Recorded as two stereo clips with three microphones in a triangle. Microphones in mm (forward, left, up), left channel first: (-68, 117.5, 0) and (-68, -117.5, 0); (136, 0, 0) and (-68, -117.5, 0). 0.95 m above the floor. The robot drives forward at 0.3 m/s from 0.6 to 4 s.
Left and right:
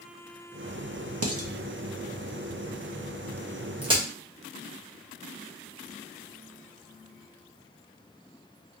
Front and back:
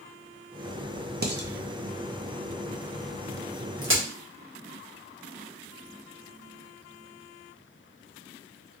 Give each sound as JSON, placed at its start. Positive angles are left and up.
{"t": 1.2, "sound": "dishes clattering", "azimuth_deg": -100, "distance_m": 0.7}
{"t": 3.8, "sound": "a crack", "azimuth_deg": -155, "distance_m": 1.2}